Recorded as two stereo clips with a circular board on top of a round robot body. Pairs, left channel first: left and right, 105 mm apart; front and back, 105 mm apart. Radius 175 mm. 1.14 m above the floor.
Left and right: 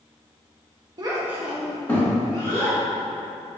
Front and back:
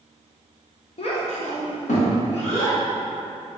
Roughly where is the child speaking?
Ahead right.